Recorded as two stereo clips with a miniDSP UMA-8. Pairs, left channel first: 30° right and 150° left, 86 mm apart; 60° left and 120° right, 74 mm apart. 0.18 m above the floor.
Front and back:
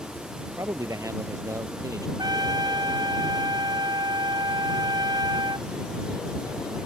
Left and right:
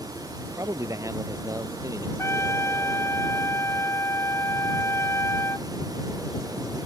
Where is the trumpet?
110° left.